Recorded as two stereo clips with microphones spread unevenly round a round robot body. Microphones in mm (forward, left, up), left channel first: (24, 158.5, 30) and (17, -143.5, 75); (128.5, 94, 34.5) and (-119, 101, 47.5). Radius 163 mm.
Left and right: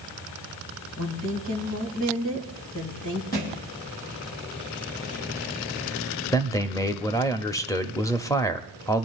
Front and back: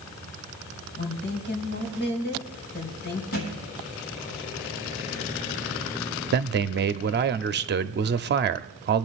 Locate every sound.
1.0 s a woman speaking: 45° left, 3.5 m
3.3 s a thud: 25° left, 6 m
6.3 s a man speaking: 155° left, 0.8 m